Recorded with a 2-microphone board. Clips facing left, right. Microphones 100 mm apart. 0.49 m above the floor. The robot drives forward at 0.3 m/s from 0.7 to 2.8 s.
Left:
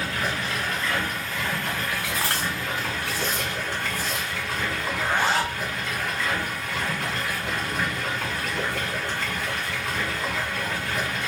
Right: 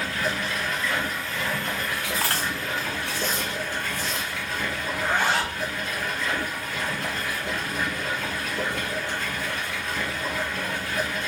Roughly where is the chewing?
Left.